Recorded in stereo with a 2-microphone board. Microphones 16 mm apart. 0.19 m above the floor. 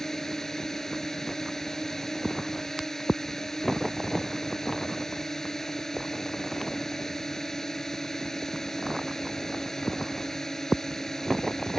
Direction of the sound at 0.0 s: 25° left (ahead or behind).